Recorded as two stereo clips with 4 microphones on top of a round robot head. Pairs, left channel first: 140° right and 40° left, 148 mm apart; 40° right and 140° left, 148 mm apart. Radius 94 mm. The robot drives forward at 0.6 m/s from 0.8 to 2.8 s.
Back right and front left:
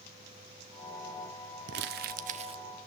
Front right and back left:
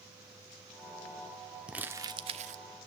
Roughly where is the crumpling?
Ahead left.